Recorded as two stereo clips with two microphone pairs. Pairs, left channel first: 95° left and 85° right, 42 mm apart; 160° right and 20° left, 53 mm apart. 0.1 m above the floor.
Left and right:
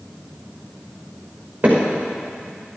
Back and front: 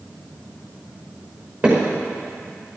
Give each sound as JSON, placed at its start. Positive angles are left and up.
{"t": 1.6, "sound": "hammering", "azimuth_deg": -30, "distance_m": 5.5}